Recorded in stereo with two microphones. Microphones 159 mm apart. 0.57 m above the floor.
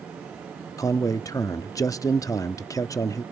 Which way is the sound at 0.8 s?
20° left (ahead or behind).